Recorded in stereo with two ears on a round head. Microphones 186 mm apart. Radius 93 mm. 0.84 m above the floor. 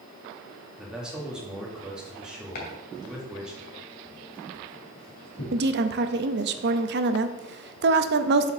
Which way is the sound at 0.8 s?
5° right (ahead or behind).